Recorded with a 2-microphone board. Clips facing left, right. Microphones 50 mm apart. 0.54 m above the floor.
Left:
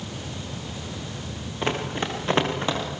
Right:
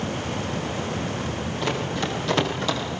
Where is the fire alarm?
No fire alarm in this recording.